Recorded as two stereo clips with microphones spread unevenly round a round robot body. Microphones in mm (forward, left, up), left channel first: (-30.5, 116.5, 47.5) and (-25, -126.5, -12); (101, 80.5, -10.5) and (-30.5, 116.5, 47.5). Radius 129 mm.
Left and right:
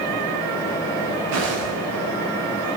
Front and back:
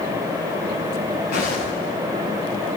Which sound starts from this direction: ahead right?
Footsteps, at 1.3 s.